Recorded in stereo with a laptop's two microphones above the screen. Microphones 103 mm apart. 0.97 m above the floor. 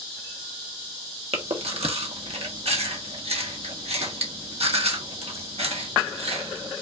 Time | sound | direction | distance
1.3 | chewing | 80° right | 1.1 m